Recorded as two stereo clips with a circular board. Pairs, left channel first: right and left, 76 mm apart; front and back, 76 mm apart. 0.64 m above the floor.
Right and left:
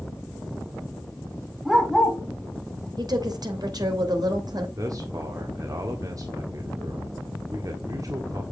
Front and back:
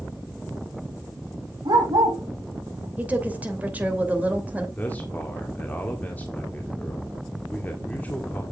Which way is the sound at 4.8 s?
65° left.